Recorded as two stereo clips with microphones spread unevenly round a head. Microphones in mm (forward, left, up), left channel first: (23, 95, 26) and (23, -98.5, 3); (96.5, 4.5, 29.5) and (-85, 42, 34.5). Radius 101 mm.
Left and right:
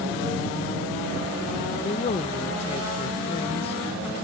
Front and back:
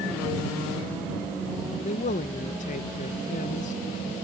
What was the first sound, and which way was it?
A man speaking, 35° left.